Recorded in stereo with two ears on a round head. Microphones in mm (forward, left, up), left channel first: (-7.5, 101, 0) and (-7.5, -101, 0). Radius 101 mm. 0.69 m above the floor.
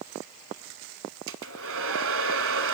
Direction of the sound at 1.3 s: 60° right (ahead or behind).